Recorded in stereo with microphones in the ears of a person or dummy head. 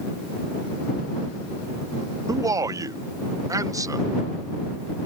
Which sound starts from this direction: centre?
A man speaking, at 2.3 s.